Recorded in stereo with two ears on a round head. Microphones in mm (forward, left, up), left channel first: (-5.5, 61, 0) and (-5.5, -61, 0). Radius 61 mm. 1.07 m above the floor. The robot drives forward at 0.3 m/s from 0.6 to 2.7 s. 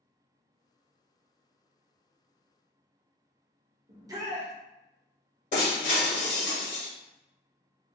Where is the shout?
25° right (ahead or behind), 0.6 m.